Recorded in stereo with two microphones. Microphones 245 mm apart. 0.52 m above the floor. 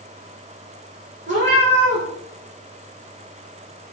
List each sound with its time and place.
1.3 s a cat meowing: 45° right (ahead or behind), 3.5 m